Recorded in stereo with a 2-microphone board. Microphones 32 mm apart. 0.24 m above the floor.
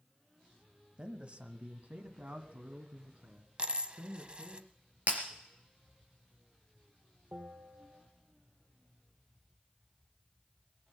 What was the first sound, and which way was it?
A man speaking, 30° right (ahead or behind).